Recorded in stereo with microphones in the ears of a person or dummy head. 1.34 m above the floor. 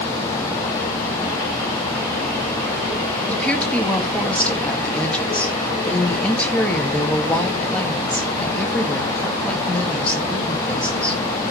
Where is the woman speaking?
10° left (ahead or behind), 2 m.